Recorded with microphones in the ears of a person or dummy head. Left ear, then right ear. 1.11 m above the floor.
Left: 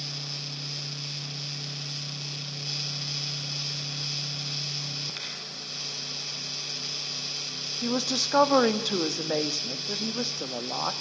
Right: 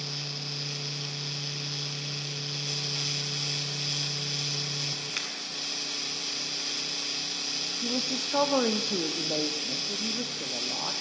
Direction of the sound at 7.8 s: 70° left (ahead or behind).